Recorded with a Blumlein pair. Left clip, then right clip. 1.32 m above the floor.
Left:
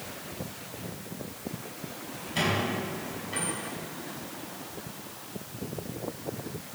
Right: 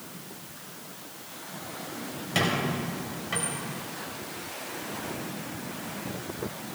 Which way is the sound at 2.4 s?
40° right.